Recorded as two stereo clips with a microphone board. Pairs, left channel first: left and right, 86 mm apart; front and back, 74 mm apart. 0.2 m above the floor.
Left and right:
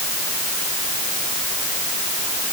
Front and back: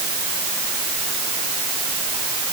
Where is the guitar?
I don't hear a guitar.